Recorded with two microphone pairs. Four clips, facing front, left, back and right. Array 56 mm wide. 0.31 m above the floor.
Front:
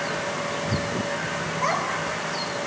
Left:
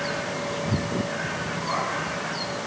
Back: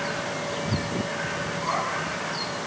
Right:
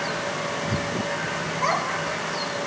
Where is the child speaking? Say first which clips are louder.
Right 4 dB, front 3 dB; 50° right, 2.5 m.